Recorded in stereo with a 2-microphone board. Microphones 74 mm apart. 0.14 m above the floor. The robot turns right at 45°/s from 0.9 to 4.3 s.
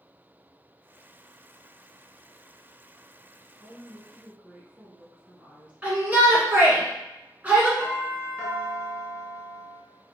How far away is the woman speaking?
About 1.2 m.